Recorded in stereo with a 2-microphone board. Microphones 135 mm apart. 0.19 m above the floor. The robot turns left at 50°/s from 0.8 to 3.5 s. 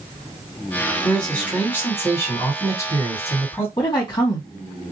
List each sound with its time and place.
1.0 s a man speaking: 5° left (ahead or behind), 1.7 m; by 3.7 s 15° left (ahead or behind), 1.7 m
3.8 s a woman speaking: 30° left (ahead or behind), 1.8 m